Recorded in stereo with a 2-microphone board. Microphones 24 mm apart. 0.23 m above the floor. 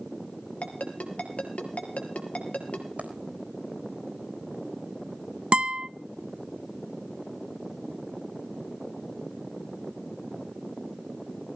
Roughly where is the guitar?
Right.